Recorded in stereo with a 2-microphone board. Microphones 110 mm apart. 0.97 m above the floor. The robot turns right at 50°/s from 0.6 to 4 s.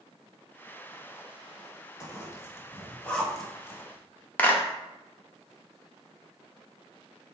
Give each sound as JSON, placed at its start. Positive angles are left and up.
{"t": 2.0, "sound": "a zipper", "side_deg": 30, "distance_m": 0.9}
{"t": 4.4, "sound": "a clap", "side_deg": 15, "distance_m": 0.6}